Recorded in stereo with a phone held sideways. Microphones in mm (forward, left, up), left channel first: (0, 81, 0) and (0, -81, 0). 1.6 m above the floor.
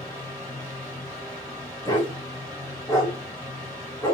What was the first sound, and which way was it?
A fan, 20° right (ahead or behind).